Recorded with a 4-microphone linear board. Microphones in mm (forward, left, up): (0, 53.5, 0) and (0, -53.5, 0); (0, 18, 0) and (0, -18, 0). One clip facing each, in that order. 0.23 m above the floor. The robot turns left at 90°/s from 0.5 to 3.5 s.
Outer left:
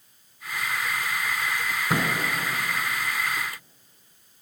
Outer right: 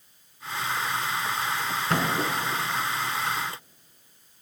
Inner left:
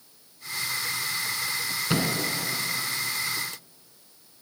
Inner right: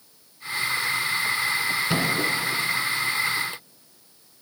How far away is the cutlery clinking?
I don't hear cutlery clinking.